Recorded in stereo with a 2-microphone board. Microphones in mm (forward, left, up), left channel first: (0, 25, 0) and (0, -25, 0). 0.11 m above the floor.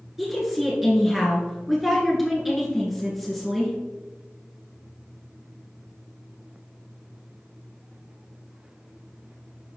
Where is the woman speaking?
Centre (ahead or behind), 1.3 m.